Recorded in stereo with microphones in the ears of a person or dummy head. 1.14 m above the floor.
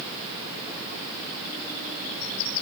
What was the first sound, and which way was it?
Only background noise.